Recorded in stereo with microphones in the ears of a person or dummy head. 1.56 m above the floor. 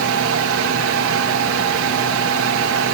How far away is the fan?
About 3 m.